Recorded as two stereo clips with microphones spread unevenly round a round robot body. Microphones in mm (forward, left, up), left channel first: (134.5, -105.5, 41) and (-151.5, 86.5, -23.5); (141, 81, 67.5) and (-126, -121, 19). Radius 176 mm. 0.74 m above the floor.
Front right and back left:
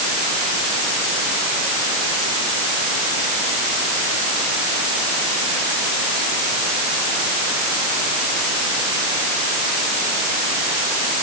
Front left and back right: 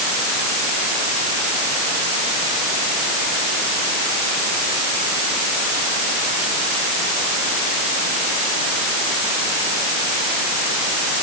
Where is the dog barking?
I don't hear a dog barking.